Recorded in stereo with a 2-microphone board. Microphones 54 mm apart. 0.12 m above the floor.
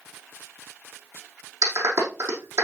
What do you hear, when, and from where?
1.6 s a clap: 60° right (ahead or behind), 5 m